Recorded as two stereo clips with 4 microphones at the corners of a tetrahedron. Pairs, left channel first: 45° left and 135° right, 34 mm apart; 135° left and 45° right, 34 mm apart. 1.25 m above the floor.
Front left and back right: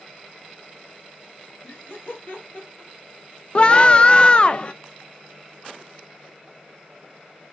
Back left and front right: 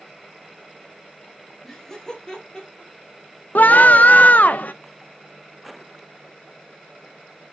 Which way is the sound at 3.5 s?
105° left.